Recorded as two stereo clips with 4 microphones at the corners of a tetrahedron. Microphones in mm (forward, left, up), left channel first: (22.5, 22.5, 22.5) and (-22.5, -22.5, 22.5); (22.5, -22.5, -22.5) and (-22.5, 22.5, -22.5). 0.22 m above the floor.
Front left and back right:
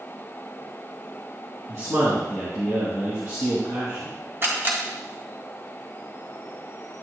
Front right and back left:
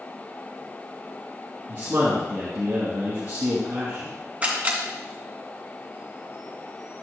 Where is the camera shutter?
170° right, 2.5 m.